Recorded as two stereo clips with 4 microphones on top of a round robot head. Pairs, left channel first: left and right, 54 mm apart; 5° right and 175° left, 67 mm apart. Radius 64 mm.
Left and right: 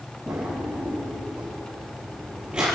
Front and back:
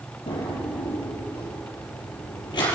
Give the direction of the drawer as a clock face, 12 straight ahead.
12 o'clock.